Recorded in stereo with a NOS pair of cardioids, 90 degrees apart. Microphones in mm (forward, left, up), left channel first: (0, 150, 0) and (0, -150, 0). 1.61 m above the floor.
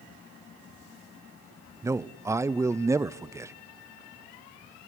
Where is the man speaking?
10° right, 0.6 m.